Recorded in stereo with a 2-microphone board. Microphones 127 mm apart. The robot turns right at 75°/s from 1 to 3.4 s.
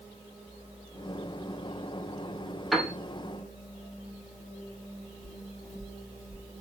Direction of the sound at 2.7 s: Centre (ahead or behind).